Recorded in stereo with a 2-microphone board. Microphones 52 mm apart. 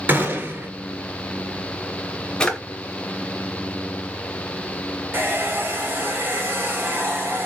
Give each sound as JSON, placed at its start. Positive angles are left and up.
{"t": 0.1, "sound": "a gunshot", "side_deg": -35, "distance_m": 0.9}
{"t": 2.4, "sound": "a drawer", "side_deg": 15, "distance_m": 0.6}
{"t": 5.1, "sound": "a hair dryer", "side_deg": -35, "distance_m": 1.2}